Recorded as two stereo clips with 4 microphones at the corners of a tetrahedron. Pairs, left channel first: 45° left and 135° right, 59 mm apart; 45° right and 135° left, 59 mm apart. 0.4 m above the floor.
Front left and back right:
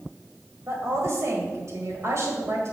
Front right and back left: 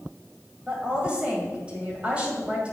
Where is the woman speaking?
160° right, 1.9 m.